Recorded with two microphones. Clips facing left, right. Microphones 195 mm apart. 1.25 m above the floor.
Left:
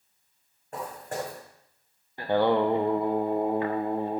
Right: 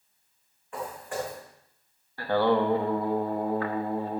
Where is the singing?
20° left (ahead or behind), 0.9 m.